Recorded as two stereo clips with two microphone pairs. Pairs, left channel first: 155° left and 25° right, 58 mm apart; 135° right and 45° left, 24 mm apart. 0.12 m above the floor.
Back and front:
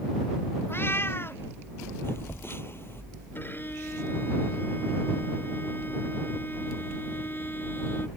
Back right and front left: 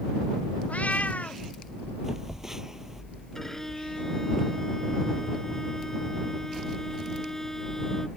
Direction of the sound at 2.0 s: 115° left.